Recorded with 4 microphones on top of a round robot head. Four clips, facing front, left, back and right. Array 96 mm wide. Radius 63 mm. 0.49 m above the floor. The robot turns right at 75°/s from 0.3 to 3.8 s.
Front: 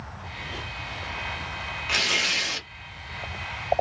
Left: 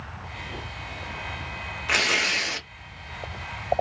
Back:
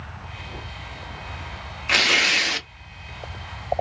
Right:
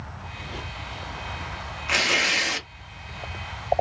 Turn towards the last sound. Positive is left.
turn(degrees=-65)